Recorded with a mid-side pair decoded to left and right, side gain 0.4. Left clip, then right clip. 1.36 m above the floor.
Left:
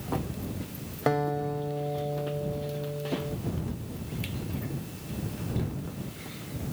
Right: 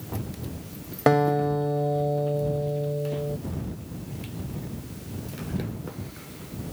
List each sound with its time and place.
1.1 s a guitar: 50° right